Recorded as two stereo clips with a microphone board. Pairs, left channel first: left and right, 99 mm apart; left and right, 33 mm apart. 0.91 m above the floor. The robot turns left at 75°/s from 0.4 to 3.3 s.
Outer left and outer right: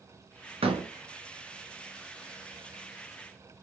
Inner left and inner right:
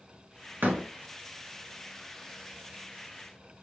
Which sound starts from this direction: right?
A door slam, at 0.6 s.